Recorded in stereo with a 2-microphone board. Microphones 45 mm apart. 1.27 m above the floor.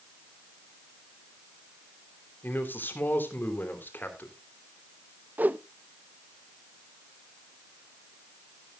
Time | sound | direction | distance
2.4 | a man speaking | 50° left (ahead or behind) | 3 m
5.4 | a whoosh | 40° right (ahead or behind) | 0.6 m